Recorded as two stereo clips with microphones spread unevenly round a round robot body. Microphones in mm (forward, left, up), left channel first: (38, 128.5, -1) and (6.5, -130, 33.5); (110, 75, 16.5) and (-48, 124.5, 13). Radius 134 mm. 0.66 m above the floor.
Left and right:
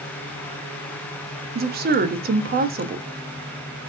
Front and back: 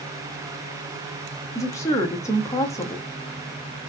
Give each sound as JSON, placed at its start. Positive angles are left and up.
{"t": 1.6, "sound": "a woman speaking", "azimuth_deg": -75, "distance_m": 0.6}